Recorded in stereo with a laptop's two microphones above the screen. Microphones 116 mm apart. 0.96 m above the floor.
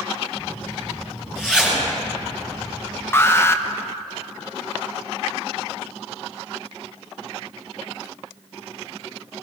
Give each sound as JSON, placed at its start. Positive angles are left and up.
{"t": 0.3, "sound": "a zipper", "side_deg": -5, "distance_m": 4.0}
{"t": 3.1, "sound": "an alarm", "side_deg": 20, "distance_m": 0.7}